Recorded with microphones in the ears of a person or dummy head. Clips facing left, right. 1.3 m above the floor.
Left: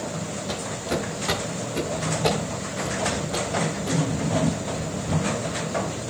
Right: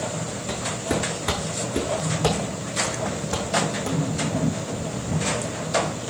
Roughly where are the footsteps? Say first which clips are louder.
Right 2 dB; right.